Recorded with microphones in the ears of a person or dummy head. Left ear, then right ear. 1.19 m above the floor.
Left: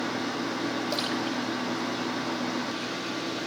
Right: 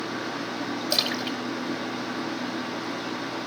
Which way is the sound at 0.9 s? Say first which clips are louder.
Right 3 dB; 40° right (ahead or behind).